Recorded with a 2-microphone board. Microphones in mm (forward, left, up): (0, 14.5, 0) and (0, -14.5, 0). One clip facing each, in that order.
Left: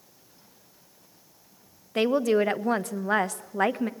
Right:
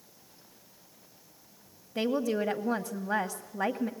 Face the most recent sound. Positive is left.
turn(degrees=70)  # may be behind; listen again after turning